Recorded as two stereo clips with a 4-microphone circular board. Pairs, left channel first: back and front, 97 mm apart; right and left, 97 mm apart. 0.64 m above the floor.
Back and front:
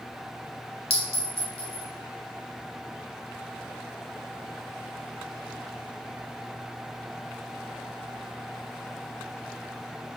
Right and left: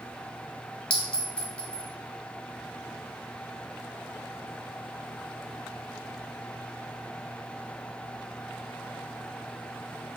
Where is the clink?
170° right, 1.1 m.